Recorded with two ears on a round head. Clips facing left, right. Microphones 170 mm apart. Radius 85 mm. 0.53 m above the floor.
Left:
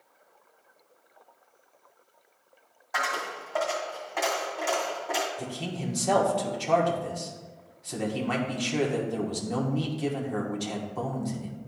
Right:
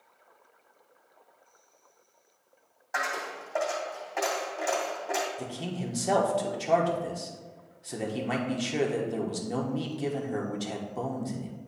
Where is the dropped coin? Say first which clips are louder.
Left 1 dB; 5° right (ahead or behind), 2 m.